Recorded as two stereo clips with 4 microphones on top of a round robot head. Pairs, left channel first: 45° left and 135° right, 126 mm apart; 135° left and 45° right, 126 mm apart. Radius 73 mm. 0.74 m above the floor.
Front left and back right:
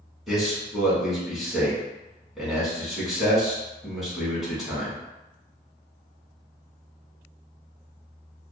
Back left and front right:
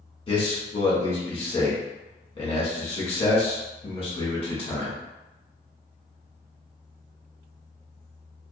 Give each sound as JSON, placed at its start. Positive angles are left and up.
{"t": 0.3, "sound": "a man speaking", "azimuth_deg": 140, "distance_m": 1.3}